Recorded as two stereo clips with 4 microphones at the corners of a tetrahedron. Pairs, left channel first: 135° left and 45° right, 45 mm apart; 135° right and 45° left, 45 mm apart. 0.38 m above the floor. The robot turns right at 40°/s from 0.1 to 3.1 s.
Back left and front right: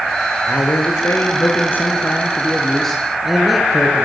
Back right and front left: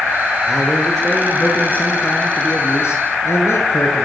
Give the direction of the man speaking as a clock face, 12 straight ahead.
8 o'clock.